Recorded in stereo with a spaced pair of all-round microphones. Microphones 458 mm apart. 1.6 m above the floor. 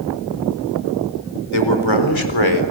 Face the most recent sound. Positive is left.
turn(degrees=80)